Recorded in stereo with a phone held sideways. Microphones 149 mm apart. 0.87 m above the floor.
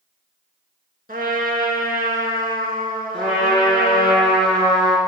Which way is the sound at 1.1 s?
75° right (ahead or behind).